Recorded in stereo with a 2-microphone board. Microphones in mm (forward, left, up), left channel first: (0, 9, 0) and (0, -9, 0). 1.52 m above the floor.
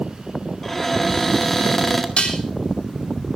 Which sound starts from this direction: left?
Dishes clattering, at 2.2 s.